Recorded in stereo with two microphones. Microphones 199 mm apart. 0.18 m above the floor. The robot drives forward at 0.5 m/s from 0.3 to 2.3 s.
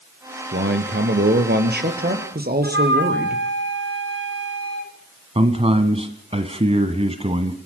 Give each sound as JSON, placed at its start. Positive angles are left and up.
{"t": 0.5, "sound": "a man speaking", "side_deg": -65, "distance_m": 3.0}
{"t": 2.6, "sound": "a flute", "side_deg": -85, "distance_m": 5.5}
{"t": 5.3, "sound": "a man speaking", "side_deg": -30, "distance_m": 1.8}